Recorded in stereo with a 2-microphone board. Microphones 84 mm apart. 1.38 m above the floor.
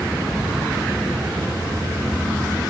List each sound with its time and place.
0.2 s an explosion: 35° left (ahead or behind), 5.5 m